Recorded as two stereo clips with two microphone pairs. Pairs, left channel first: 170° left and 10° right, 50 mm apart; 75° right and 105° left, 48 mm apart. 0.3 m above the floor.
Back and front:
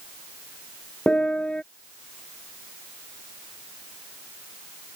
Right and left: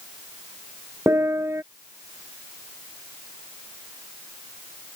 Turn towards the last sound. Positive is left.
turn(degrees=100)